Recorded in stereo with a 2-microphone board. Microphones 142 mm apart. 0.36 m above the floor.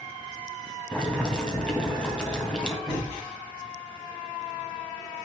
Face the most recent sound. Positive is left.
turn(degrees=5)  # may be behind; listen again after turning